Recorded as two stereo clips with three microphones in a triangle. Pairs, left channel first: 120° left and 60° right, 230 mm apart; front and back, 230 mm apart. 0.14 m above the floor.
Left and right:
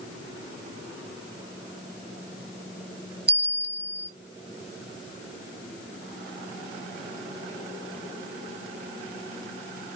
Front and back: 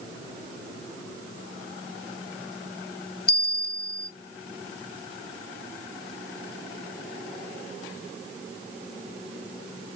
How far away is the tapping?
No tapping in this recording.